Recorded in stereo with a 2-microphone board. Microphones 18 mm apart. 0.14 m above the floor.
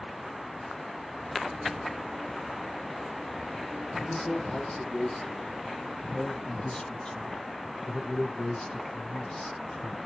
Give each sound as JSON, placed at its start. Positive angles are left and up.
{"t": 4.0, "sound": "a man speaking", "side_deg": 40, "distance_m": 4.5}